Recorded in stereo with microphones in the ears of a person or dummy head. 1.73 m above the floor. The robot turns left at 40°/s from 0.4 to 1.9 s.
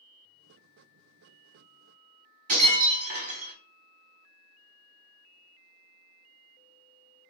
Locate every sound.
2.5 s breaking glass: 55° right (ahead or behind), 1.7 m